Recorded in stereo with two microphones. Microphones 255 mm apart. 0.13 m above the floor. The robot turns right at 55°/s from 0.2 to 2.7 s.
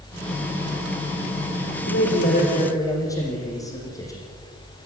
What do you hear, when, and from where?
1.9 s a man speaking: 120° left, 5.5 m; by 4.2 s 165° left, 5.5 m